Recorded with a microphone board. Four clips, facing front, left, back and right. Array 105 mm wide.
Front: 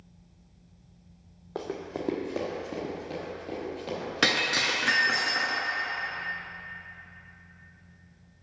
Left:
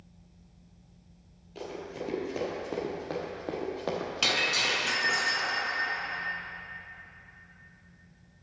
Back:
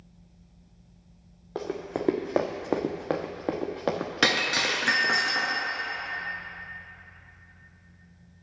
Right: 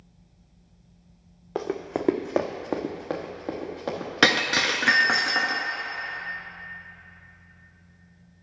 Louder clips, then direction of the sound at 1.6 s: Right 9 dB, back 3 dB; 90° right.